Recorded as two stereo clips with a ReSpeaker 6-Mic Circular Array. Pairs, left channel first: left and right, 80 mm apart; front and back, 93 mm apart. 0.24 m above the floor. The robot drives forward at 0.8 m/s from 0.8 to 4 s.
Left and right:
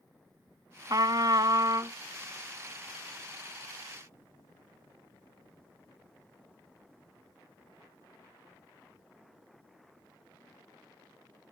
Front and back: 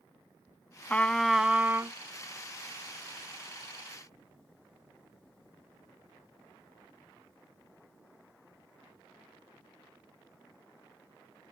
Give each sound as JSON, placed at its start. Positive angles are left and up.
{"t": 0.9, "sound": "a trumpet", "azimuth_deg": -70}